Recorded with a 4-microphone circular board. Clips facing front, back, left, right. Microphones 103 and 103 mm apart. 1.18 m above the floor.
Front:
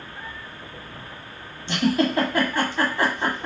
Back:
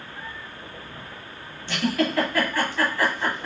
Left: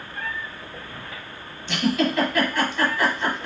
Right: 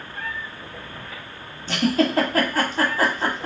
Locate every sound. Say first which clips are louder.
1.7 s a giggle: front 3 dB, right 2 dB; 60° right, 1.4 m